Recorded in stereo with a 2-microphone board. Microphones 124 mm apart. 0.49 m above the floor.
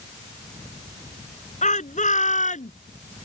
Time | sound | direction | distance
1.6 | a shout | 75° left (ahead or behind) | ?